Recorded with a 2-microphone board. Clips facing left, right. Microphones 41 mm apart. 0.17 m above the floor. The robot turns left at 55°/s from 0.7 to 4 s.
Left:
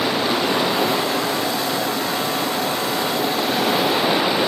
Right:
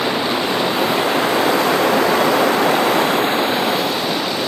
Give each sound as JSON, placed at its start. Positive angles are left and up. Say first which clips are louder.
{"t": 0.0, "sound": "running water", "louder": "right 1 dB", "azimuth_deg": -10}